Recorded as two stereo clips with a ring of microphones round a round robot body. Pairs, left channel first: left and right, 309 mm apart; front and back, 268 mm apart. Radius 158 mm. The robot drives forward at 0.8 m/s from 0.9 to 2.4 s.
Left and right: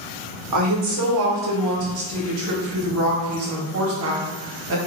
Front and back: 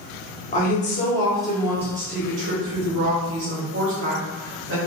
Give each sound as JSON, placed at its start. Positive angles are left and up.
{"t": 0.5, "sound": "a woman speaking", "azimuth_deg": -65, "distance_m": 1.1}